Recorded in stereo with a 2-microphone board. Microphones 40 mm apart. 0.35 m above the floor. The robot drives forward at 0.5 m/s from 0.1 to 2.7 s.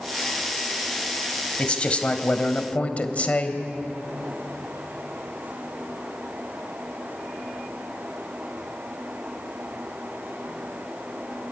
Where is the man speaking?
25° left (ahead or behind), 2 m; by 3.6 s 35° left (ahead or behind), 1.7 m.